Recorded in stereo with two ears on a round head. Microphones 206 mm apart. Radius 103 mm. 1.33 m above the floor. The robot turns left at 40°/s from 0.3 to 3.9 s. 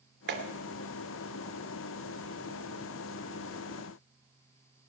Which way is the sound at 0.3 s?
50° right (ahead or behind).